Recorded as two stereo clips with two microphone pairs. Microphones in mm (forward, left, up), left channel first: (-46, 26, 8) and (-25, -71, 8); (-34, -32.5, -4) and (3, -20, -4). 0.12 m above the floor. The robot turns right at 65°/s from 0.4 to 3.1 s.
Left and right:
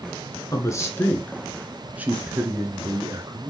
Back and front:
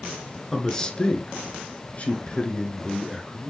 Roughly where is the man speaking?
Behind left.